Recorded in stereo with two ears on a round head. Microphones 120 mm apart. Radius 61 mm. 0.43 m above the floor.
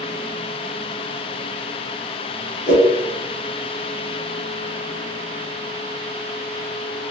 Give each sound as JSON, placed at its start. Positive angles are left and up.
{"t": 2.7, "sound": "a whoosh", "side_deg": 60, "distance_m": 1.0}